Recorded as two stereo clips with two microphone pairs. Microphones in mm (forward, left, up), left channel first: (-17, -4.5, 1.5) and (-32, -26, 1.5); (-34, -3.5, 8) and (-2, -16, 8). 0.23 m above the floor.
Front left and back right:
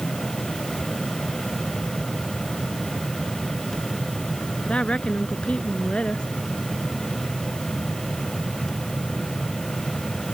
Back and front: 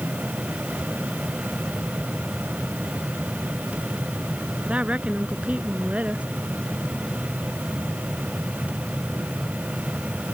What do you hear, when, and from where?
4.7 s a woman speaking: 25° left